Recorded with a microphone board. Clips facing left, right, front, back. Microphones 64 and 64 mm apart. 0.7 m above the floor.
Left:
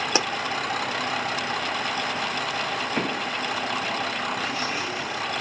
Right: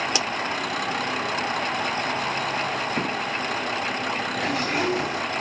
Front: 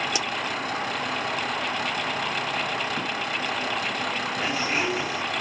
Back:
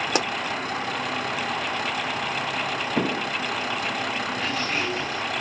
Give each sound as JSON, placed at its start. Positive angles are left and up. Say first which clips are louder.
{"t": 0.1, "sound": "a pop", "louder": "left 2 dB, back 4 dB", "azimuth_deg": 145}
{"t": 2.9, "sound": "an explosion", "louder": "even, back 4 dB", "azimuth_deg": 170}
{"t": 4.4, "sound": "a zipper", "louder": "right 4 dB, front 3 dB", "azimuth_deg": -70}